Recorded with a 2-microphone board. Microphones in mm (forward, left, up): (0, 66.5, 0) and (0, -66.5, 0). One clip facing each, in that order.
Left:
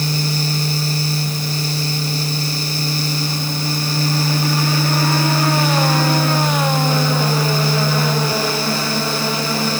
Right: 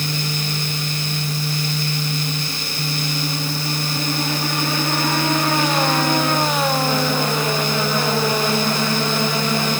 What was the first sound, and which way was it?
Only background noise.